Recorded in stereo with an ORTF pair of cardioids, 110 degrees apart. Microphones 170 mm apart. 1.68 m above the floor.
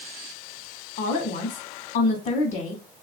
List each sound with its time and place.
1.0 s a woman speaking: 60° left, 1.0 m